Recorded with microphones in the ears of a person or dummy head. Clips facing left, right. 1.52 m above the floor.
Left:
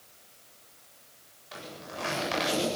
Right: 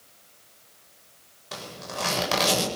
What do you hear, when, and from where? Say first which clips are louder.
1.5 s a zipper: right 4 dB; 65° right (ahead or behind), 8 m